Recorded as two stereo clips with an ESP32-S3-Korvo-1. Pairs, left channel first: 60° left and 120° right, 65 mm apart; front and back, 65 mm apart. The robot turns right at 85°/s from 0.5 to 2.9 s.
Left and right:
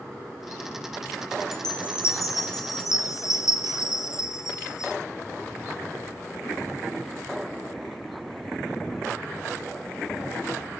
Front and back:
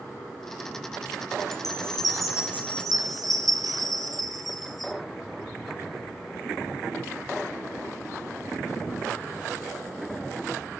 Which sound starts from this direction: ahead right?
A chime, at 1.5 s.